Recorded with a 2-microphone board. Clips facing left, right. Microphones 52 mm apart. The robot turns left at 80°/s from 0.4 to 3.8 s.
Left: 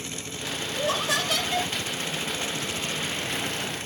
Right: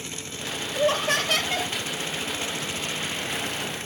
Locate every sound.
0.8 s laughter: 40° right, 2.5 m; by 1.7 s 115° right, 2.5 m